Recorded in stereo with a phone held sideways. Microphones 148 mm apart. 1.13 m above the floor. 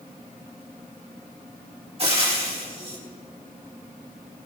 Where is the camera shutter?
No camera shutter in this recording.